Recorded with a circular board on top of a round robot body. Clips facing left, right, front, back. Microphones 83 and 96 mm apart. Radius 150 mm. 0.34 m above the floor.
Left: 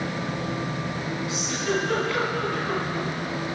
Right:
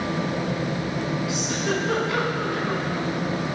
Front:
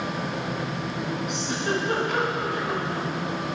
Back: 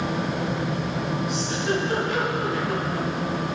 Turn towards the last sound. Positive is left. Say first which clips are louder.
# right 1 dB, back 2 dB
turn(degrees=-20)